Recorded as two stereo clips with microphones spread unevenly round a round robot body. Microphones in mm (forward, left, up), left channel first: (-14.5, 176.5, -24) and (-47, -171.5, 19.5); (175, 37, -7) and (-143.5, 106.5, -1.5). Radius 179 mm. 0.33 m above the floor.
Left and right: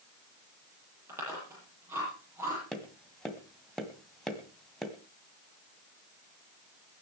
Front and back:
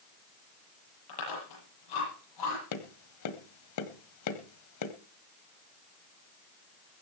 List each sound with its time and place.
1.1 s chewing: 10° right, 9.5 m
2.7 s tapping: straight ahead, 1.6 m